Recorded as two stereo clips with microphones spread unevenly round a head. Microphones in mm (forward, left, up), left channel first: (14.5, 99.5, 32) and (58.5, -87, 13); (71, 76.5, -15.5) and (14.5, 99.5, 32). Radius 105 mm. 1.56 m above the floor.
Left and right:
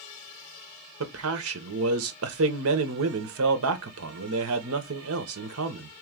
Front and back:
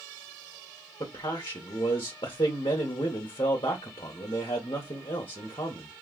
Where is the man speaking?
100° right, 0.8 m.